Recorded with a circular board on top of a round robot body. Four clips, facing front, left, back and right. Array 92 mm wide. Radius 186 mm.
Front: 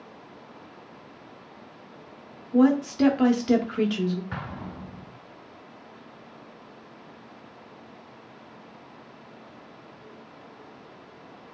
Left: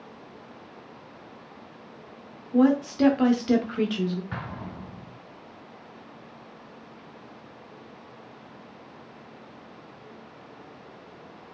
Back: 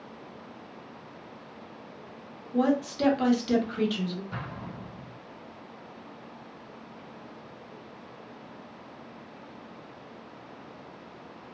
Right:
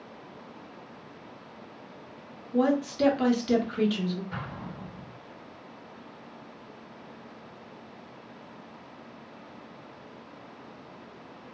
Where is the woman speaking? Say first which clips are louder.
Left 4 dB, front 5 dB; 35° left, 1.1 m.